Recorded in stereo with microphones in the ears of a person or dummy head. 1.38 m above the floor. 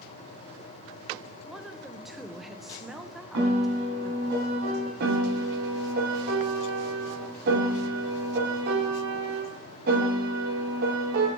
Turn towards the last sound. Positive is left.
turn(degrees=-60)  # may be behind; listen again after turning